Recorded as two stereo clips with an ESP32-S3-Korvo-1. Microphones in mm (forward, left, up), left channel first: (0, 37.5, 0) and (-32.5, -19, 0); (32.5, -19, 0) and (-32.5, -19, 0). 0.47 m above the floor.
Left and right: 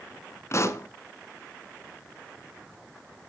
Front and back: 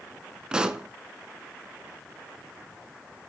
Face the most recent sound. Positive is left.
turn(degrees=105)